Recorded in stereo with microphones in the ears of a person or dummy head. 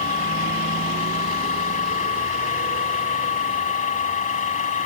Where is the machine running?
35° left (ahead or behind).